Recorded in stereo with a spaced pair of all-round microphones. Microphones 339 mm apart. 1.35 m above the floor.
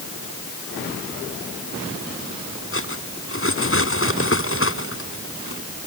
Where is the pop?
No pop in this recording.